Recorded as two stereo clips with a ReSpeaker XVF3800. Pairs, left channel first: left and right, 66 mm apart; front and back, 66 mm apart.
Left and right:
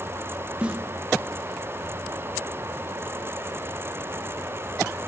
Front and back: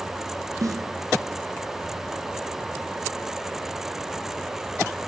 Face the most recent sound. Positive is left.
turn(degrees=-160)